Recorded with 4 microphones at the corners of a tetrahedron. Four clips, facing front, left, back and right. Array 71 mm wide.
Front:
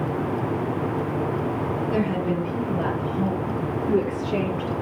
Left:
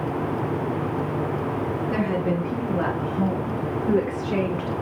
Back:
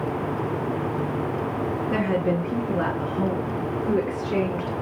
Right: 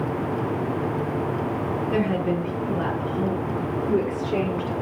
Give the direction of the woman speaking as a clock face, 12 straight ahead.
7 o'clock.